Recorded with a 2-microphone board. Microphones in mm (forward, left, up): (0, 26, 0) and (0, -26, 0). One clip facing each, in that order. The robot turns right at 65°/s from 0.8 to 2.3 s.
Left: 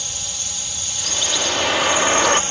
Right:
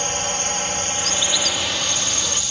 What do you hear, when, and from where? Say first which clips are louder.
0.0 s a drone: right 9 dB; 50° right (ahead or behind); by 2.5 s 35° left (ahead or behind)
1.0 s a bird: left 4 dB; straight ahead; by 2.4 s 85° left